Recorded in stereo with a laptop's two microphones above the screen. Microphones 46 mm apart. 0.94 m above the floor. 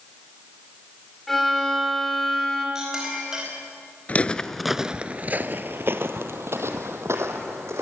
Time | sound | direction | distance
1.3 | a violin | 5° left (ahead or behind) | 3.5 m
2.8 | a clink | 10° right (ahead or behind) | 4.5 m
4.1 | footsteps | 30° left (ahead or behind) | 1.0 m